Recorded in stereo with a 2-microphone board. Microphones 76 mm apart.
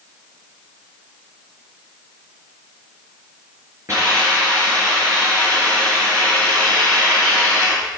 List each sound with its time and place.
3.9 s a hiss: 40° right (ahead or behind), 4.5 m